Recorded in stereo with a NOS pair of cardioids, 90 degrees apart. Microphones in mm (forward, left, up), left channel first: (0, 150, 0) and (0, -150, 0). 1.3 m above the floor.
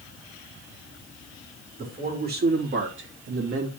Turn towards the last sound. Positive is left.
turn(degrees=-50)